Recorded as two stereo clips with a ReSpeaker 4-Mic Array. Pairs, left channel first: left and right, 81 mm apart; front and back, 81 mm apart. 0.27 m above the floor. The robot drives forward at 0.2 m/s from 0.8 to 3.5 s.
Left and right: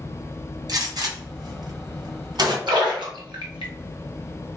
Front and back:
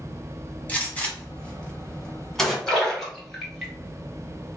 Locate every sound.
0.7 s a gunshot: 70° right, 1.2 m; by 2.6 s 85° right, 1.2 m
2.7 s a splash: 85° right, 1.6 m; by 3.7 s 90° right, 1.6 m